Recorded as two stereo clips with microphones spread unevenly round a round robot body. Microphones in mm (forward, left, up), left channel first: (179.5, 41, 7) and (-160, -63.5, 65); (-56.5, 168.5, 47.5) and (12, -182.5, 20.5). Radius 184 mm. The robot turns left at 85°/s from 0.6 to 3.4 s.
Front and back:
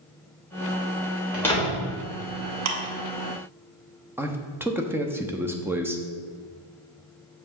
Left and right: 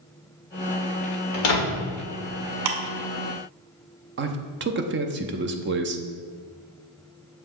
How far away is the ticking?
About 1.2 m.